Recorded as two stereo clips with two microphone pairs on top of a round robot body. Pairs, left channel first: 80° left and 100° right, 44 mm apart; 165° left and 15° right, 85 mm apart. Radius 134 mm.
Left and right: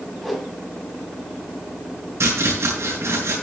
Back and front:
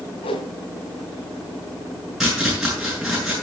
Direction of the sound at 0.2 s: 175° left.